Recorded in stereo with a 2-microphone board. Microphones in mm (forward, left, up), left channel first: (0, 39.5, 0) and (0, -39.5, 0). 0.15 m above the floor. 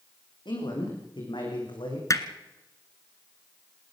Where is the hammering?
45° left (ahead or behind), 1.3 m.